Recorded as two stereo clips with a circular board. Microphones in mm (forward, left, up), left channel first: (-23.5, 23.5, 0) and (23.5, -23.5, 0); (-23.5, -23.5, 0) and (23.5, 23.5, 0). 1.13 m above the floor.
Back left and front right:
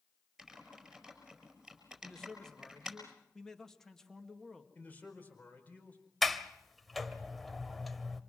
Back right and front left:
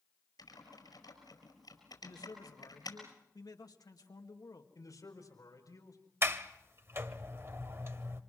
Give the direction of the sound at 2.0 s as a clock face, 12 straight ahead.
5 o'clock.